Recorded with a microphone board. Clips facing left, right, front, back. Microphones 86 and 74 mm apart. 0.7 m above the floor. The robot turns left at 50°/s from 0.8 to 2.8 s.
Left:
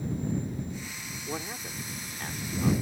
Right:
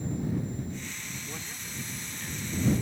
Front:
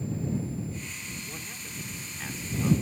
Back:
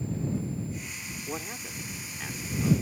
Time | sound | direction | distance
1.3 | a man speaking | 140° left | ?